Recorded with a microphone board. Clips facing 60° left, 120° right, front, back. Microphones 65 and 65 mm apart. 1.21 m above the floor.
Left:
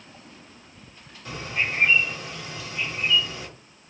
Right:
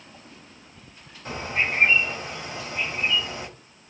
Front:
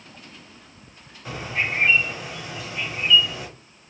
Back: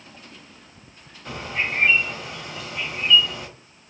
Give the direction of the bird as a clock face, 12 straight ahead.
3 o'clock.